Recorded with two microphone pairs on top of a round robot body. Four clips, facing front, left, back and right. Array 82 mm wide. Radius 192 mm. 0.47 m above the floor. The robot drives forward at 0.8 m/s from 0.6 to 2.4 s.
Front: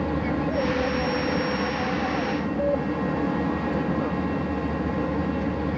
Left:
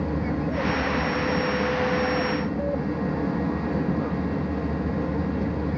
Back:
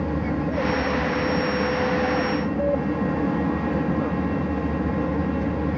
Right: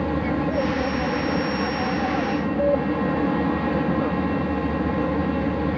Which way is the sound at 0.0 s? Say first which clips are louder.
Right 4 dB, even; 70° right.